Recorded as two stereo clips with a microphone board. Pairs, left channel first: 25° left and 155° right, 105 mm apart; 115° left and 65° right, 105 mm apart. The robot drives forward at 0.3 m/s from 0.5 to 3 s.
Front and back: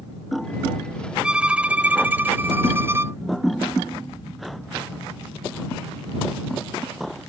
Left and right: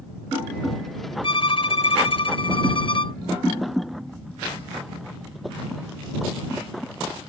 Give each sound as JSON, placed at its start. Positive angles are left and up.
{"t": 1.2, "sound": "a violin", "azimuth_deg": 125}